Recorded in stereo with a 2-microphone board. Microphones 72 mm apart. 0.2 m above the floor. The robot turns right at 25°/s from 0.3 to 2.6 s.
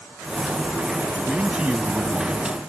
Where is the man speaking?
160° right; by 2.5 s 125° right.